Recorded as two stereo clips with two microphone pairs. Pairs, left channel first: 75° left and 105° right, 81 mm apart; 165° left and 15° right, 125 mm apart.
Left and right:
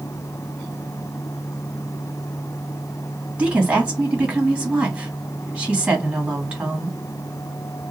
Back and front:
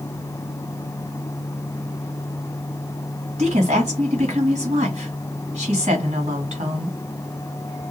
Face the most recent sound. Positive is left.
turn(degrees=-30)